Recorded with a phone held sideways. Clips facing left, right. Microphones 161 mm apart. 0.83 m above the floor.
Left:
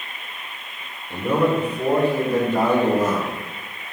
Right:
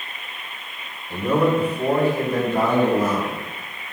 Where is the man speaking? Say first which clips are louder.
Right 1 dB; 5° left (ahead or behind), 2 m; by 3.4 s 55° left (ahead or behind), 2.5 m.